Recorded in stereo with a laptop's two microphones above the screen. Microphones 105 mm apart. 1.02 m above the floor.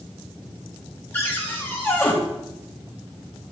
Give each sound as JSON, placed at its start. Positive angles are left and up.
{"t": 1.1, "sound": "a cupboard door", "side_deg": 20, "distance_m": 0.7}